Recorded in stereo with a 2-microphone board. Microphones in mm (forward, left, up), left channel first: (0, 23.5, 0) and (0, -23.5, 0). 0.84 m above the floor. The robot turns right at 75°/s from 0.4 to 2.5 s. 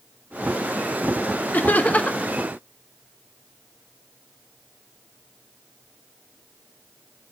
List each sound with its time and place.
1.5 s laughter: 95° left, 1.0 m; by 2.3 s 155° left, 1.0 m